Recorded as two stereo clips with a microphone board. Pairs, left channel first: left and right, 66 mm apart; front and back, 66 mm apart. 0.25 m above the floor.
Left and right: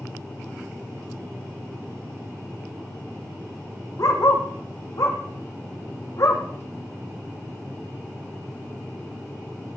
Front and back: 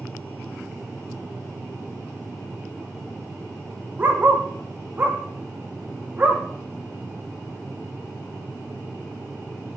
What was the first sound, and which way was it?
A dog barking, 120° left.